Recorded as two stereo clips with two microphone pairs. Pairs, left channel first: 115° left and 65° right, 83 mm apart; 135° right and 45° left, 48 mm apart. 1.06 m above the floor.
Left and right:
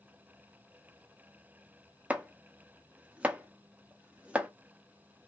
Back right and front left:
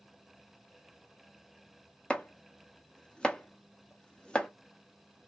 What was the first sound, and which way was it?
Chopping, 105° right.